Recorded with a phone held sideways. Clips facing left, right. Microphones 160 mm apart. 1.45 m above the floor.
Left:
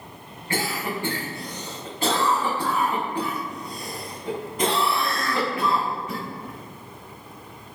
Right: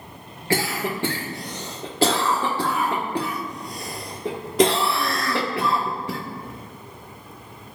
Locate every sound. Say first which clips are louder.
0.5 s a cough: right 3 dB; 85° right, 1.3 m